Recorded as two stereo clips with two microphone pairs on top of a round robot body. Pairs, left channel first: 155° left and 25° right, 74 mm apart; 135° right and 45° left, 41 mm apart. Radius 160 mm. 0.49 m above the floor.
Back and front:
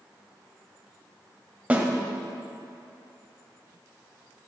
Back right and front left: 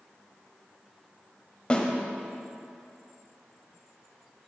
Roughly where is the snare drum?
Right.